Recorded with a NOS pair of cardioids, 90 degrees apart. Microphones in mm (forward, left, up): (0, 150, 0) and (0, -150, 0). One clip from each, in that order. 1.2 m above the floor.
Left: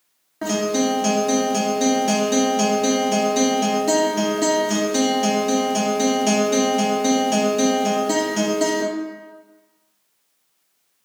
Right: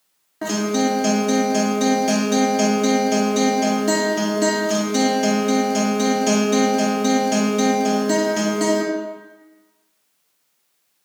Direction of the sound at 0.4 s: Straight ahead.